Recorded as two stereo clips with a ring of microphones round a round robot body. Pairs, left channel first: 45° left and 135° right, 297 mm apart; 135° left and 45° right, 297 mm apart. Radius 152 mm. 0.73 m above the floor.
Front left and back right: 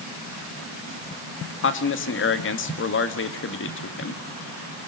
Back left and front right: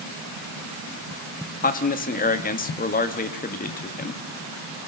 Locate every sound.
1.6 s a man speaking: 80° left, 1.6 m